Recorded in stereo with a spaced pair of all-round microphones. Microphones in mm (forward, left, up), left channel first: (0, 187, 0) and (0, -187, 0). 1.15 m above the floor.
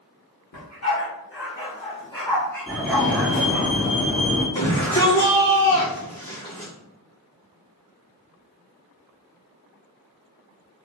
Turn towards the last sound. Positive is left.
turn(degrees=15)  # may be behind; listen again after turning